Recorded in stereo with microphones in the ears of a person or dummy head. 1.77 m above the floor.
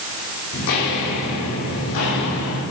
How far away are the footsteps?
About 5.5 m.